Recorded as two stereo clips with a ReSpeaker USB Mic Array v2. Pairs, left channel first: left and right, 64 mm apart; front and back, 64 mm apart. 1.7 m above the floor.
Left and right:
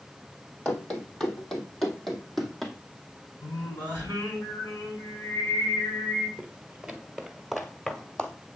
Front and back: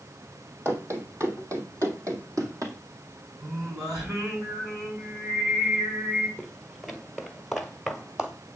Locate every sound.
0.7 s running footsteps: 155° left, 2.5 m; by 2.8 s straight behind, 3 m
3.4 s singing: 150° left, 8 m
6.4 s footsteps: 90° right, 1.7 m; by 8.3 s 120° left, 1.7 m